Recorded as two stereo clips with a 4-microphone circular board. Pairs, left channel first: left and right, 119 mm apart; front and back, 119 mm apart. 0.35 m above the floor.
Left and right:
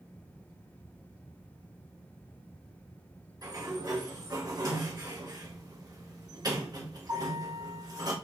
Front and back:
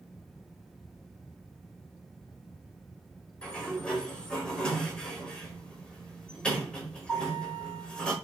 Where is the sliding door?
75° right, 1.3 m.